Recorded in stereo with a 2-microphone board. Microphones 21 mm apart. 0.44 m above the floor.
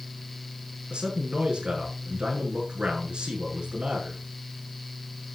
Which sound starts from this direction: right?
A man speaking, at 0.9 s.